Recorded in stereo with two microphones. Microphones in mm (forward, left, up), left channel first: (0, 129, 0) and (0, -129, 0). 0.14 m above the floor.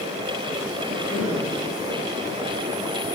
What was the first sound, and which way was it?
A cough, 45° left (ahead or behind).